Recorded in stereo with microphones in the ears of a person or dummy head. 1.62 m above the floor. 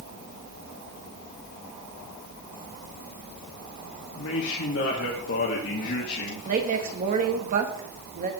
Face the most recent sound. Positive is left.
turn(degrees=-45)  # may be behind; listen again after turning